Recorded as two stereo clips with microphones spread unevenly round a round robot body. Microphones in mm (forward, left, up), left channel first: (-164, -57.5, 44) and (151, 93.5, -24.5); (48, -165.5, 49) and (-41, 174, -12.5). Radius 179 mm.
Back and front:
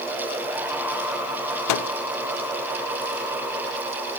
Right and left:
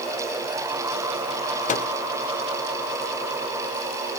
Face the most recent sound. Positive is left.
turn(degrees=-145)